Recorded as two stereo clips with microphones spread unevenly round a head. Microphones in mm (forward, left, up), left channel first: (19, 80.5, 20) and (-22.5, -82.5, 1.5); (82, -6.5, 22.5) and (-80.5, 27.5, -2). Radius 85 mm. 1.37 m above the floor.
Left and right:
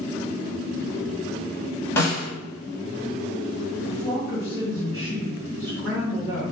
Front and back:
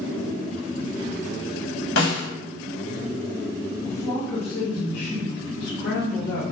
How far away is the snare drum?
About 1.1 m.